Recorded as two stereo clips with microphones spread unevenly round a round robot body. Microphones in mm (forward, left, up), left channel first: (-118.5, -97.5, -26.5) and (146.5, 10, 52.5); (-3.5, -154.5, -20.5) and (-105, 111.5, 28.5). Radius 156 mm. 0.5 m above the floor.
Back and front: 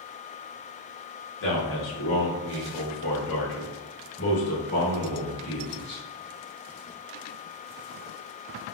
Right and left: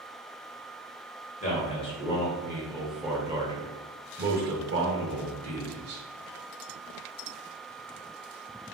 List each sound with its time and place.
1.4 s a man speaking: 130° right, 1.7 m; by 6.0 s 140° left, 1.8 m